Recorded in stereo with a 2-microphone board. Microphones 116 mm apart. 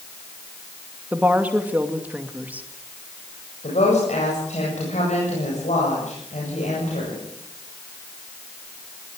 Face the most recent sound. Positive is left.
turn(degrees=80)